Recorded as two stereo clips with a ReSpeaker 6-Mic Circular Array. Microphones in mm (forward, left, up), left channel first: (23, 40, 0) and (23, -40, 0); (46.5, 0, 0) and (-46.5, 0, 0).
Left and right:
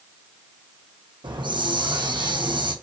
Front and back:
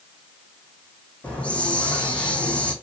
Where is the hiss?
80° right, 2 m.